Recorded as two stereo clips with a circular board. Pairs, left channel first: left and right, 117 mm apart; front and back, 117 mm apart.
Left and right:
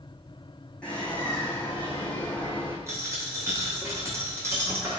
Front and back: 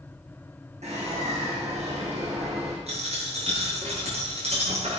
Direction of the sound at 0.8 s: 170° left.